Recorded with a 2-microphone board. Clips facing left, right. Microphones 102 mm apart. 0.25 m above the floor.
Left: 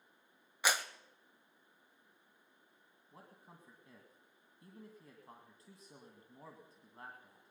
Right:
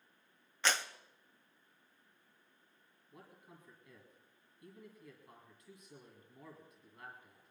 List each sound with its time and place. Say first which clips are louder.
0.6 s a clap: even; 10° left (ahead or behind), 0.8 m
3.1 s a man speaking: right 1 dB; 35° left (ahead or behind), 2 m